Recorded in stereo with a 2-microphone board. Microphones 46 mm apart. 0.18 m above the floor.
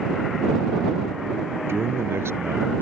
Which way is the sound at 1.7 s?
65° right (ahead or behind).